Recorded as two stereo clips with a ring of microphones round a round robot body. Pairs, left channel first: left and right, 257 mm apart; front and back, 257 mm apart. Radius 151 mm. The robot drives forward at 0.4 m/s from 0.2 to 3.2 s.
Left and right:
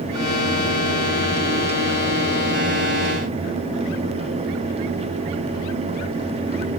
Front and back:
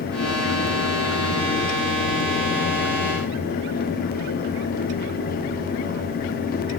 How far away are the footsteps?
No footsteps in this recording.